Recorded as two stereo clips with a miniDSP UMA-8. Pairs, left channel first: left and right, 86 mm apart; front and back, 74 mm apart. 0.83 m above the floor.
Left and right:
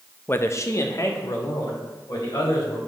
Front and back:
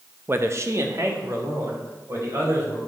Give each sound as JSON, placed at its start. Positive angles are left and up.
{"t": 0.3, "sound": "a man speaking", "azimuth_deg": 145, "distance_m": 0.6}